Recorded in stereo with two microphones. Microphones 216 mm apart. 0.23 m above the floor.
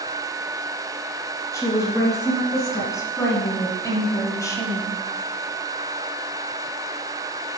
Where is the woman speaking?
15° left (ahead or behind), 3 m.